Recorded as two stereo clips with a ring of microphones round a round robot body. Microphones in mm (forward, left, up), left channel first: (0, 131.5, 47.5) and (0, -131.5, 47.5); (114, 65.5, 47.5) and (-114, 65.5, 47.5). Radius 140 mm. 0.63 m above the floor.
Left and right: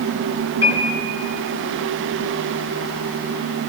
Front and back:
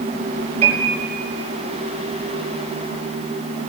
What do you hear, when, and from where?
0.6 s a piano: 120° left, 4.5 m